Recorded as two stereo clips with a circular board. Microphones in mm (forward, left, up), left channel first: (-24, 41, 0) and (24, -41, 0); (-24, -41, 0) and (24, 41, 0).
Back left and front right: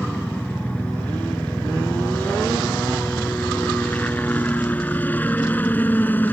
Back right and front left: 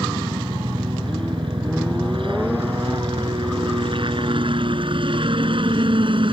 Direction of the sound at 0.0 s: 45° left.